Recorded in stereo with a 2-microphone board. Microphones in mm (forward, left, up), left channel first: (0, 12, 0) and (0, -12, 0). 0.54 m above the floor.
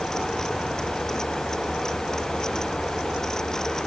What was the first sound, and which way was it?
Only background noise.